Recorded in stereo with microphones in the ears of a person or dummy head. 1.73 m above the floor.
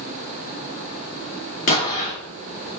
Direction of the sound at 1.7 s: 40° left (ahead or behind).